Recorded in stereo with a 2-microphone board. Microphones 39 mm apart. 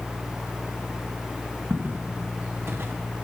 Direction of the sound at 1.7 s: 80° right.